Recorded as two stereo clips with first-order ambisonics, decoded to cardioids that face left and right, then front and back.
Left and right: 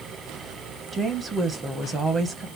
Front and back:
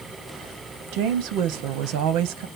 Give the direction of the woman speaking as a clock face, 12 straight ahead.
5 o'clock.